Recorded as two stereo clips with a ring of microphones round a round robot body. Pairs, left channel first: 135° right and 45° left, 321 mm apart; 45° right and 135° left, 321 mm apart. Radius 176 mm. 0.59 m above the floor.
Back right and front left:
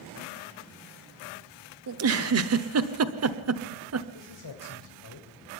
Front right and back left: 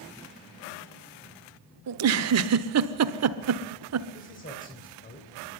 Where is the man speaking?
110° right, 3 m.